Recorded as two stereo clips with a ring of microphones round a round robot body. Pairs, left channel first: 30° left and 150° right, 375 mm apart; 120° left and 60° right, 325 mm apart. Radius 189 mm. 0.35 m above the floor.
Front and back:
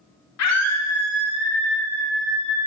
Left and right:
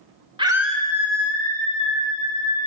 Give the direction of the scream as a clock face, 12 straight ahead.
12 o'clock.